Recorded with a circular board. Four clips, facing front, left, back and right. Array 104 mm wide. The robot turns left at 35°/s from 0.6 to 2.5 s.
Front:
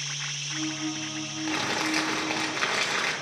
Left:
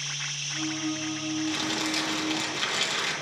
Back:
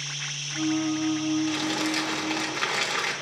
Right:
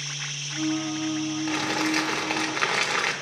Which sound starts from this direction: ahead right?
Crumpling, at 1.5 s.